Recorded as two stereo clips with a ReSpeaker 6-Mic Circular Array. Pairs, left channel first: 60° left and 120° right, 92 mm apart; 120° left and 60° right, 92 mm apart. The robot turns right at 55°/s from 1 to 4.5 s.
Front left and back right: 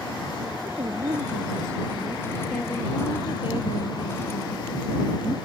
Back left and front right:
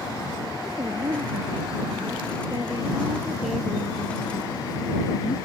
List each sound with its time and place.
0.7 s a woman speaking: 105° right; by 5.3 s 90° left